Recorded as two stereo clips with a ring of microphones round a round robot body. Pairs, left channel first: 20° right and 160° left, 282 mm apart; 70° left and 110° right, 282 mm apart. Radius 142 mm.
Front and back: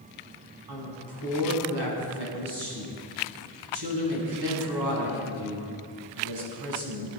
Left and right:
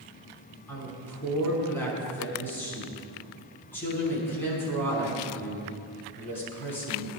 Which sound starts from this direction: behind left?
A woman speaking, at 0.7 s.